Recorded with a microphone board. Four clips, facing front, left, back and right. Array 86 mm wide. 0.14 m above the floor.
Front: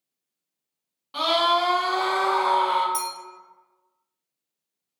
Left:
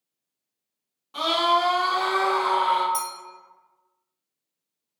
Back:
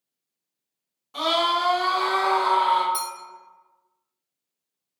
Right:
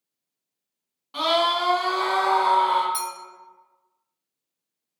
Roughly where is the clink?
Behind right.